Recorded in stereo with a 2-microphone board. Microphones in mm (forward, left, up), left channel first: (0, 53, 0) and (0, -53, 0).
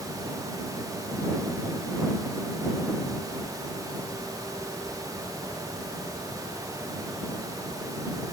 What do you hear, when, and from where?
Only background noise.